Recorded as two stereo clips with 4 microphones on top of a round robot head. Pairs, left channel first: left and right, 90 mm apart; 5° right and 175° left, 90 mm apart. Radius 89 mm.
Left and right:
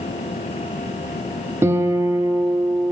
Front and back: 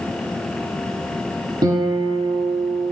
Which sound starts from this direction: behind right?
A guitar, at 1.6 s.